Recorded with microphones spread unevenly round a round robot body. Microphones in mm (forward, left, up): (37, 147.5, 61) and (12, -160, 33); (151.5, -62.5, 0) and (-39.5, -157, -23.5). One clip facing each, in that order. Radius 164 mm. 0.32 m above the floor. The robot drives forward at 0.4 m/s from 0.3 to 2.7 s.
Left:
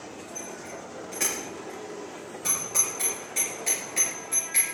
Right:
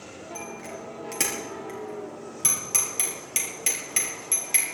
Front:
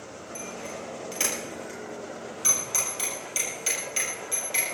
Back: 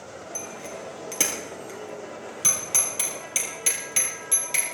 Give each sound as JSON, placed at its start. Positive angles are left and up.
{"t": 0.3, "sound": "a bicycle bell", "azimuth_deg": -125, "distance_m": 4.5}